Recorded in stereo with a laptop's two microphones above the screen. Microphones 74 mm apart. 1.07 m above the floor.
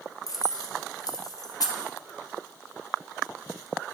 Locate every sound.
0.3 s keys jangling: 55° left (ahead or behind), 0.6 m